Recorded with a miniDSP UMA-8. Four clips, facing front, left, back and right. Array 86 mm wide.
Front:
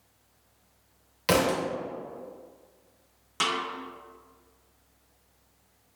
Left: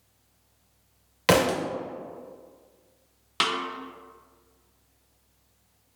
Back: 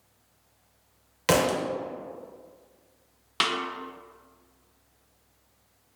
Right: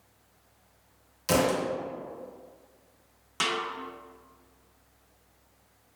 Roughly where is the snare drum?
Behind left.